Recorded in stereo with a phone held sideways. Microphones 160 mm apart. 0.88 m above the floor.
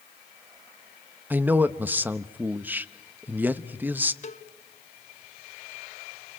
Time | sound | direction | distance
1.3 | a man speaking | 10° right (ahead or behind) | 0.9 m
4.2 | a cowbell | 45° left (ahead or behind) | 1.0 m